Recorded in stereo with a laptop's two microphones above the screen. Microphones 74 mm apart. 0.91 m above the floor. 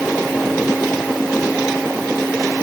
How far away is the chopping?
I don't hear chopping.